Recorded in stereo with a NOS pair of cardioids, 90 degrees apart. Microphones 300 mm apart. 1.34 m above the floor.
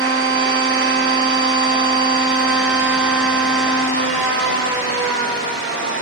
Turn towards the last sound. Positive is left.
turn(degrees=-45)